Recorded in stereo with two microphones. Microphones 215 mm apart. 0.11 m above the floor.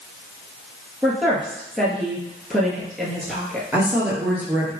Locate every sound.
1.0 s a woman speaking: centre (ahead or behind), 1.6 m
3.7 s a woman speaking: 10° right (ahead or behind), 1.8 m